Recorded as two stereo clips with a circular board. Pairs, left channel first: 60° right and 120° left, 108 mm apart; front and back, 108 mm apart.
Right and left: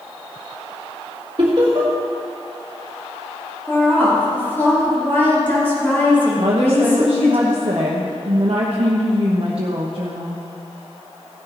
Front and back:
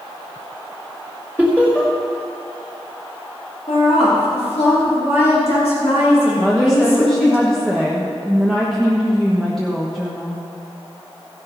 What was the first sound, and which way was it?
Laughter, 75° left.